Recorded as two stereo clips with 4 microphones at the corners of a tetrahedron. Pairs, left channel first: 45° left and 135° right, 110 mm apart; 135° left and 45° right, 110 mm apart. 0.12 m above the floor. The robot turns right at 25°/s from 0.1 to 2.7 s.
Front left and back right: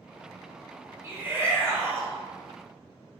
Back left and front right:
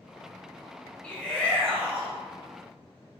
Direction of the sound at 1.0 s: 170° right.